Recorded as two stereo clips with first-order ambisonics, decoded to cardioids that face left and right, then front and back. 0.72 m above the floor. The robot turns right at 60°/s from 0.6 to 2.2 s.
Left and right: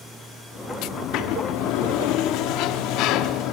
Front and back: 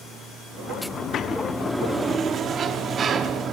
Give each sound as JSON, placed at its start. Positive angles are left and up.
{"t": 0.9, "sound": "a sliding door", "azimuth_deg": 45, "distance_m": 0.9}